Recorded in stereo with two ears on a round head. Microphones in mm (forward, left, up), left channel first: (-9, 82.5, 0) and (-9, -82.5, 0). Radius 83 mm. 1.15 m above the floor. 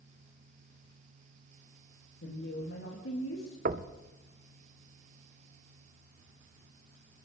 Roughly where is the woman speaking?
Left.